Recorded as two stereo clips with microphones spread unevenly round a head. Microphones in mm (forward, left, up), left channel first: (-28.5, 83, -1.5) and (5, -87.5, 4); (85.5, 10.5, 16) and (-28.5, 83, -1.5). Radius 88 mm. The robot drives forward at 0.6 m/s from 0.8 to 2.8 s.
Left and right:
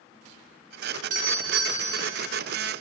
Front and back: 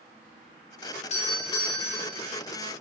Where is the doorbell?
55° right, 1.0 m; by 2.3 s 120° right, 1.0 m.